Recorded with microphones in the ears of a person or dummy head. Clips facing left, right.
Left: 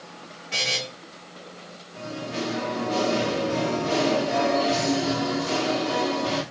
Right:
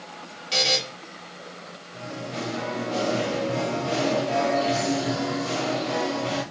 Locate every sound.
0.5 s a buzzer: 60° right (ahead or behind), 1.8 m
1.9 s singing: centre (ahead or behind), 2 m